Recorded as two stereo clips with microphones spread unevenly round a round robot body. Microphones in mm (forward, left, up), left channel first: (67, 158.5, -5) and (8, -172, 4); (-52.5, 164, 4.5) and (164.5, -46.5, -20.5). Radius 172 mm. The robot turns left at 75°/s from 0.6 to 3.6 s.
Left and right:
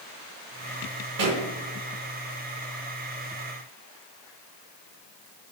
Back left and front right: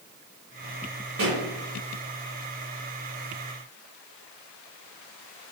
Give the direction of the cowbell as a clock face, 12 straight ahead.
I don't hear a cowbell.